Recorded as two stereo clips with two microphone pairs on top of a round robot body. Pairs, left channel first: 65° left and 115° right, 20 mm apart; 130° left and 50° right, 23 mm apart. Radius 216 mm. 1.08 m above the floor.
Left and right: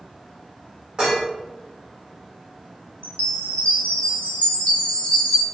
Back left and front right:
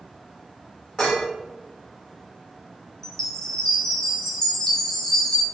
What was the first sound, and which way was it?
Dishes clattering, 175° right.